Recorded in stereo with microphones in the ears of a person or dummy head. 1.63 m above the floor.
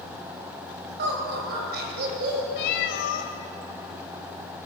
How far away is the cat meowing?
About 1.5 m.